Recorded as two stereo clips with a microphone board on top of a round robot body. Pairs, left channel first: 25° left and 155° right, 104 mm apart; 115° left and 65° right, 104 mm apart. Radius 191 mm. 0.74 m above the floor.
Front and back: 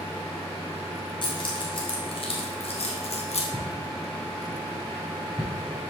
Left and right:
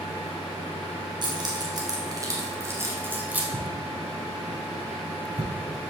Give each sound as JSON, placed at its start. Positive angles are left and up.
{"t": 1.2, "sound": "keys jangling", "azimuth_deg": -20, "distance_m": 3.0}
{"t": 3.5, "sound": "footsteps", "azimuth_deg": -75, "distance_m": 4.5}